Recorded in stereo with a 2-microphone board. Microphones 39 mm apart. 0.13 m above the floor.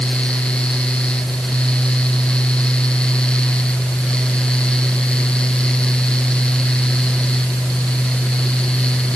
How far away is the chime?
No chime in this recording.